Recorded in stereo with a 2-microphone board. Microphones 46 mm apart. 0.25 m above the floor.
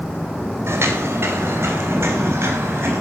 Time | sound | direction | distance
0.7 | footsteps | 65° right (ahead or behind) | 3 m